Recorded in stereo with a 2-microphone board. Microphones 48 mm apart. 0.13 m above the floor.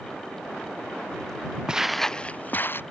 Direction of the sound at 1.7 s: 15° right (ahead or behind).